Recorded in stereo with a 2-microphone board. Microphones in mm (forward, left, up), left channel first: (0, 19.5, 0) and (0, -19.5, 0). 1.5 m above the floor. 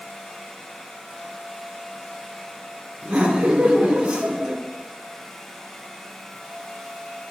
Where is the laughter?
25° right (ahead or behind), 3.5 m.